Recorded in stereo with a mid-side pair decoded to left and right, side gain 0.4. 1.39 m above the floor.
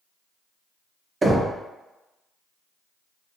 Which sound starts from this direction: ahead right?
Knocking, at 1.2 s.